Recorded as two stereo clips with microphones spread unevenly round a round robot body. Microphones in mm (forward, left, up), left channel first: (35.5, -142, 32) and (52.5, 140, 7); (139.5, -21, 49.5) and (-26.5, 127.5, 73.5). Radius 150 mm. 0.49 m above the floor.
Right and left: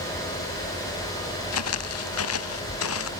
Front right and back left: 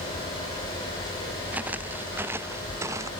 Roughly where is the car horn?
No car horn in this recording.